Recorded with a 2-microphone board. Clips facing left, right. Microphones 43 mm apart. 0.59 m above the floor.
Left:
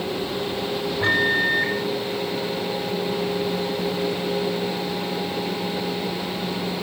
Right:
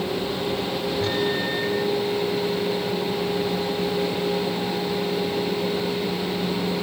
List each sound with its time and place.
1.0 s a microwave: 25° left (ahead or behind), 3.5 m